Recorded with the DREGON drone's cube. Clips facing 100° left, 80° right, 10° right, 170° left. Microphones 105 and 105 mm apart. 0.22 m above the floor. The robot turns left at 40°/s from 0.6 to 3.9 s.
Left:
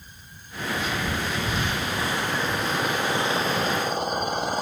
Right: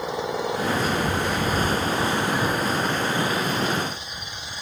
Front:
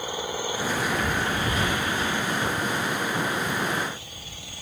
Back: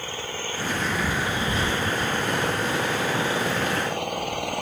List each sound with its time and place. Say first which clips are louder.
0.0 s an engine running: right 25 dB, front 3 dB; 85° right; by 4.6 s 140° left